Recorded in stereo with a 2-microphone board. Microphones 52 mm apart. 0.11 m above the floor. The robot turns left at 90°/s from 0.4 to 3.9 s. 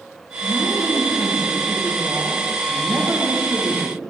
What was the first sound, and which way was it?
A woman speaking, 60° left.